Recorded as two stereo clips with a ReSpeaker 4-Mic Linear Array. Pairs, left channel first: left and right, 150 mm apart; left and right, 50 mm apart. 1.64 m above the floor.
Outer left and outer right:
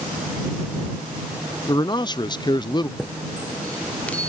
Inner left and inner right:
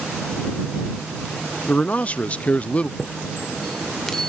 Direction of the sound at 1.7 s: 30° left (ahead or behind).